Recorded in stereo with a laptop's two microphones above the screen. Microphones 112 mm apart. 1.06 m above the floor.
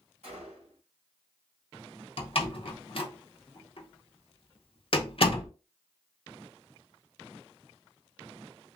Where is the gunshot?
70° right (ahead or behind), 1.8 m.